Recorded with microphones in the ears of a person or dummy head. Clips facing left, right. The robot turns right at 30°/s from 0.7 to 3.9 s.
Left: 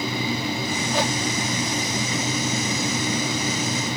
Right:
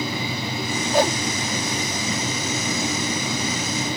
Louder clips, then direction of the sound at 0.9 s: Right 6 dB; 45° right (ahead or behind).